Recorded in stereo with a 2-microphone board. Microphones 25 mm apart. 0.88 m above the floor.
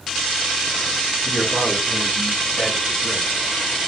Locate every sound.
1.2 s a man speaking: 65° left (ahead or behind), 6 m; by 3.3 s 60° left (ahead or behind), 4.5 m